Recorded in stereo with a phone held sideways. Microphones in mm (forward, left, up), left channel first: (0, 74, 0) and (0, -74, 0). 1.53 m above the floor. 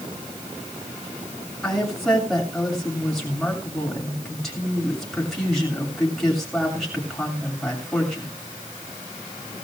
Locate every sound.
1.6 s a woman speaking: centre (ahead or behind), 7 m